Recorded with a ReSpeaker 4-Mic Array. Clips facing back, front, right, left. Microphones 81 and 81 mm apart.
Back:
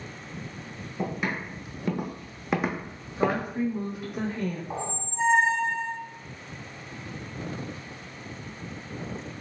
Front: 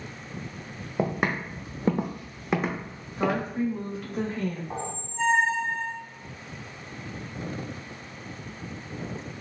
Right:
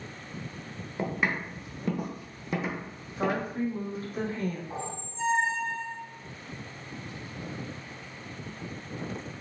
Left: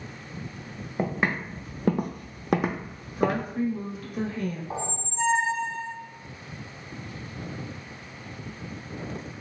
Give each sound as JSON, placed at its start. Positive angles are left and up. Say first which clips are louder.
{"t": 1.0, "sound": "footsteps", "louder": "front 4 dB, left 3 dB", "azimuth_deg": 25, "distance_m": 1.0}
{"t": 3.2, "sound": "a woman speaking", "louder": "even, left 3 dB", "azimuth_deg": -115, "distance_m": 1.5}
{"t": 4.7, "sound": "a squeak", "louder": "back 1 dB, left 4 dB", "azimuth_deg": 105, "distance_m": 0.7}